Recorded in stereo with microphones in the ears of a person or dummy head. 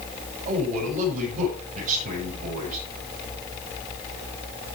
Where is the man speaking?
40° right (ahead or behind), 7 m.